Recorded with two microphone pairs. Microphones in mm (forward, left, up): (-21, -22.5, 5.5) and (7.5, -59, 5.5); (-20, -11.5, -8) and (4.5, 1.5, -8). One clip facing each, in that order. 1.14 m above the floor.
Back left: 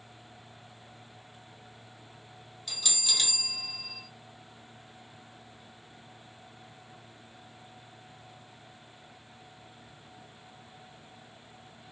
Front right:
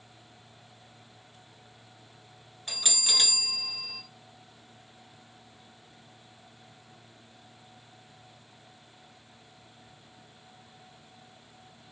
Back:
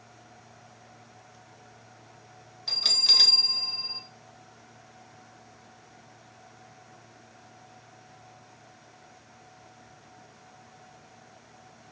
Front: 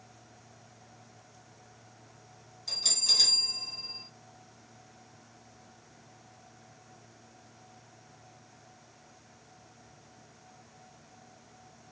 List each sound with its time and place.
2.7 s a bell: 105° right, 0.8 m